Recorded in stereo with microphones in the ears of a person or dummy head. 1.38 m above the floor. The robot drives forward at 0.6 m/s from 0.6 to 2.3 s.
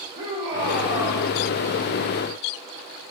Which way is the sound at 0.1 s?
50° right (ahead or behind).